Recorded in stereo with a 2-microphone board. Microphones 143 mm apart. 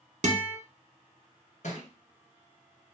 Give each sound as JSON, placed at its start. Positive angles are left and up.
{"t": 0.2, "sound": "a guitar", "side_deg": -60, "distance_m": 0.6}
{"t": 1.6, "sound": "a thud", "side_deg": 65, "distance_m": 1.3}